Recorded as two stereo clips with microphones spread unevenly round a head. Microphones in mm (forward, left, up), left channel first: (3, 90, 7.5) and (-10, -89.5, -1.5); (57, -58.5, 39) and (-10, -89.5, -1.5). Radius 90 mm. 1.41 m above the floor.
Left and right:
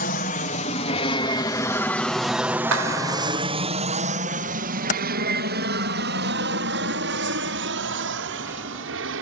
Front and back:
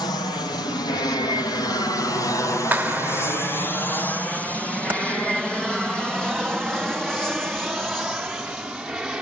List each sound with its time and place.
0.0 s an aircraft: 85° left; by 9.2 s 75° right
2.7 s a clap: 85° right
4.9 s typing on a keyboard: 135° left